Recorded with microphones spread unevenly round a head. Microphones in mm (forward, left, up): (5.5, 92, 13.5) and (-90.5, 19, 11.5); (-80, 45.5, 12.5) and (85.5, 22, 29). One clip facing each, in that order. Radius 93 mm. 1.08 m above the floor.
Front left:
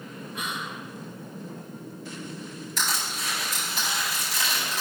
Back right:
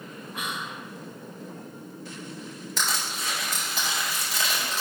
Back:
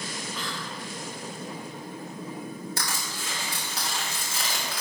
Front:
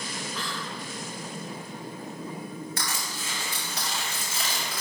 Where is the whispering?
100° right, 1.9 m.